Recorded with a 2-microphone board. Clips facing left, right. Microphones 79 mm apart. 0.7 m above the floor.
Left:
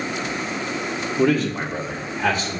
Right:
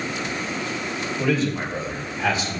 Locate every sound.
1.2 s a man speaking: 55° left (ahead or behind), 1.9 m; by 2.6 s 50° left (ahead or behind), 3.5 m